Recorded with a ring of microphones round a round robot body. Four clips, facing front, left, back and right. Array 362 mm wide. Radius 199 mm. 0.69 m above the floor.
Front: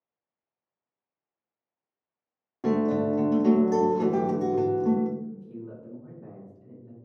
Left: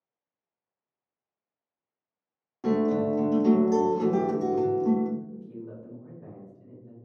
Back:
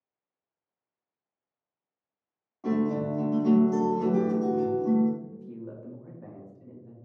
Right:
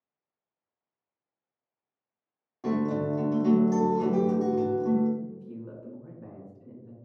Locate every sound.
2.6 s a guitar: 5° left, 0.6 m
5.2 s a man speaking: 170° right, 1.4 m